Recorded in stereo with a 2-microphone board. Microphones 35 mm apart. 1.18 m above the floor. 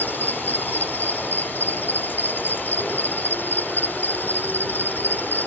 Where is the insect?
80° left.